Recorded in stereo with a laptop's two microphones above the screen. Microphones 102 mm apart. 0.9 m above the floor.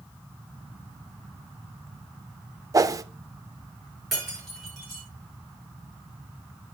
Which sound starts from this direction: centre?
Breaking glass, at 4.1 s.